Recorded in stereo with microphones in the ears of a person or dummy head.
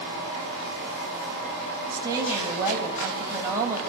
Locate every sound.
1.9 s a woman speaking: 15° right (ahead or behind), 9.5 m; by 3.8 s 10° right (ahead or behind), 7.5 m